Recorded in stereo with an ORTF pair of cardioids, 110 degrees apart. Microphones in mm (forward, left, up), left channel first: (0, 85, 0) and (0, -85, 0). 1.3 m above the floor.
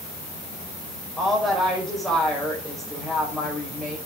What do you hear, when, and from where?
1.2 s a woman speaking: straight ahead, 5 m